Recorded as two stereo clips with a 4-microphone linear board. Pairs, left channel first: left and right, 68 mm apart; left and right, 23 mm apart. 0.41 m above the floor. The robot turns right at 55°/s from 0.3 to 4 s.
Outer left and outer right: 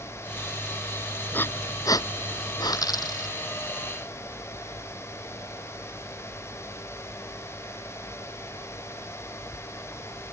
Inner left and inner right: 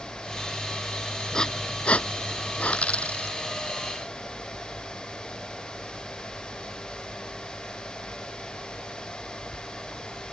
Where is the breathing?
25° left (ahead or behind); by 2.8 s 75° left (ahead or behind).